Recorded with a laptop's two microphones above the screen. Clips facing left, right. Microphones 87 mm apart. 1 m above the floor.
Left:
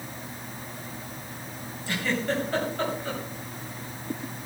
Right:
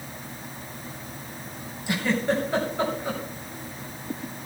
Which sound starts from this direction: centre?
A giggle, at 1.9 s.